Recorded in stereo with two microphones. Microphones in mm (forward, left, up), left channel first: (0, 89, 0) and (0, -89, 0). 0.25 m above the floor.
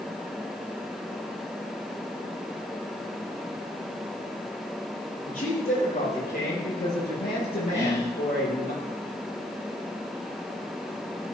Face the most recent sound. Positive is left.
turn(degrees=35)  # may be behind; listen again after turning